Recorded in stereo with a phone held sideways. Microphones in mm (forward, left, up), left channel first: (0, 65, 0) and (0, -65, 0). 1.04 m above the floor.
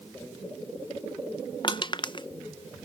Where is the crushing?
40° left (ahead or behind), 0.5 m.